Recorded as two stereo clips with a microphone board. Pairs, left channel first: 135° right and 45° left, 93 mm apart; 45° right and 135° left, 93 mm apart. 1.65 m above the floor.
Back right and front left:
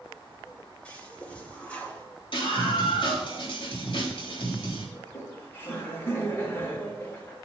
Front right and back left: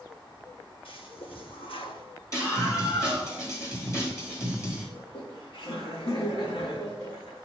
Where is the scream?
105° right, 3.5 m.